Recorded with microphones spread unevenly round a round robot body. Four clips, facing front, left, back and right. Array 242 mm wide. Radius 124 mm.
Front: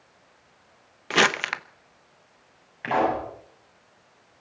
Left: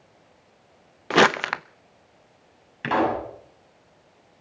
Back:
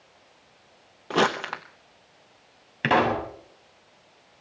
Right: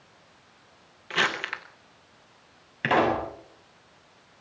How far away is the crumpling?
About 0.8 m.